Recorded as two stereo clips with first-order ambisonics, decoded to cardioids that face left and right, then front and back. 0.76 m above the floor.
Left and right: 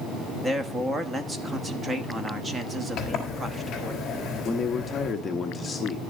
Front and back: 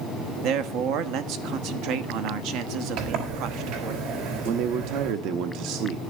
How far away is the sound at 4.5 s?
About 0.9 m.